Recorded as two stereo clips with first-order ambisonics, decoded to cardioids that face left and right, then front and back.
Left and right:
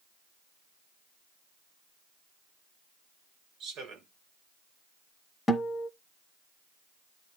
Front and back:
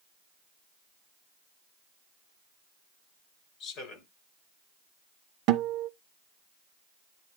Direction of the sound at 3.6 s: 40° right.